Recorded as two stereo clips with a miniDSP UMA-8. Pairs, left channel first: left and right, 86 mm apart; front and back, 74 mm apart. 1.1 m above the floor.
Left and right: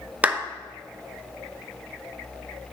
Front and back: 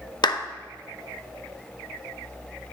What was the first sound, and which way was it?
A clap, 15° right.